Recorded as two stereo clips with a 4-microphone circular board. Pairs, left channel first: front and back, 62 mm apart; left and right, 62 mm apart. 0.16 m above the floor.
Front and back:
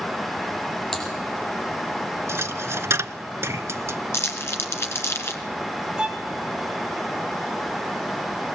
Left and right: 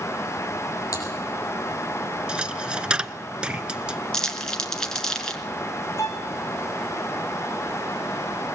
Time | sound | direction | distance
0.9 | typing on a keyboard | 85° left | 6.5 m
2.3 | a dropped coin | 160° right | 0.7 m
4.1 | crumpling | 15° left | 2.0 m
6.0 | a violin | 105° left | 2.5 m